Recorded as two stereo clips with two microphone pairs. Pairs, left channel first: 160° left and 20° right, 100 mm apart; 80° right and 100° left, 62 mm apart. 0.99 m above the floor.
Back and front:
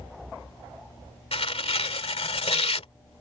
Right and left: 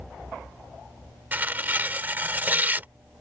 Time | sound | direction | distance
1.3 | tearing paper | 160° left | ?